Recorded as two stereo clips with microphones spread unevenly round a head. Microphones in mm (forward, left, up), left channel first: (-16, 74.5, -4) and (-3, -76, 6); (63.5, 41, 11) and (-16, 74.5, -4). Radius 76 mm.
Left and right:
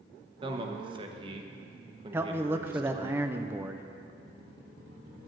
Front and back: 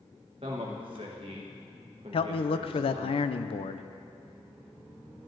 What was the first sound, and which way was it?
A man speaking, 145° right.